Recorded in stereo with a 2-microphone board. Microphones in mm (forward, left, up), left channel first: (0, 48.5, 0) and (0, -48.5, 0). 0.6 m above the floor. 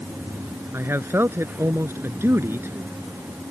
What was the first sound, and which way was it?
A man speaking, 25° right (ahead or behind).